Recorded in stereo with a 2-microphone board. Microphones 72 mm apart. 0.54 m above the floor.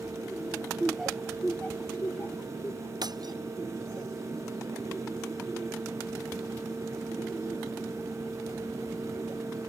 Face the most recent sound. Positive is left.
turn(degrees=-70)  # may be behind; listen again after turning